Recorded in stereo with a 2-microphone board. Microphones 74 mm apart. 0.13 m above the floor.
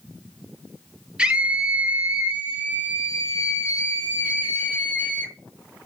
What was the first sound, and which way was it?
A scream, 15° right (ahead or behind).